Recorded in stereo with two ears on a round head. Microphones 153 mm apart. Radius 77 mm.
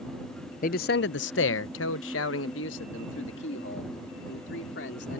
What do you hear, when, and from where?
0.6 s a man speaking: 50° left (ahead or behind); by 5.2 s 70° left (ahead or behind)